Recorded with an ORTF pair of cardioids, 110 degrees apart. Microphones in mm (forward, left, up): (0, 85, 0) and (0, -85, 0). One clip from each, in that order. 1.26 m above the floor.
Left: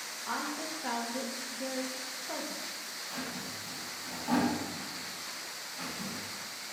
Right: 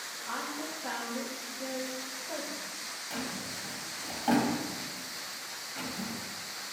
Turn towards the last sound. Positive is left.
turn(degrees=-70)